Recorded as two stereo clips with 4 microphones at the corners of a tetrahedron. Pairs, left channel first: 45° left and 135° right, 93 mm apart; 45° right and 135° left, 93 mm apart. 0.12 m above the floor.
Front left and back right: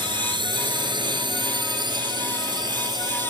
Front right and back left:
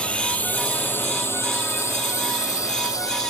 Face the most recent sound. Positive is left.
turn(degrees=-95)